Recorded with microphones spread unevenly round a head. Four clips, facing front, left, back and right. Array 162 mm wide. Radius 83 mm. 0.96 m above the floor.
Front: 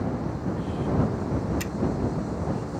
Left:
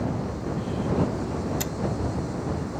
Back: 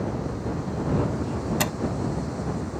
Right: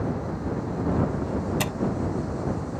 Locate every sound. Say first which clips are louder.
1.6 s a door slam: right 3 dB, back 7 dB; 160° right